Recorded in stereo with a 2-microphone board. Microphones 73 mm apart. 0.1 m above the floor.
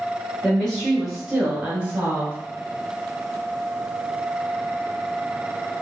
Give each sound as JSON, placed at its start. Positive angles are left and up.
{"t": 0.4, "sound": "a woman speaking", "side_deg": 10, "distance_m": 1.4}